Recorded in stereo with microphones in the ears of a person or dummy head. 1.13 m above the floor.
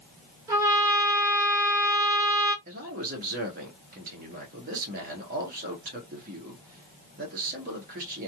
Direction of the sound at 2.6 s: 45° right (ahead or behind).